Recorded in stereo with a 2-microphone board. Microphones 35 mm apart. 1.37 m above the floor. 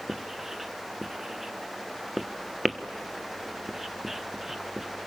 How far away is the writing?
About 1.1 m.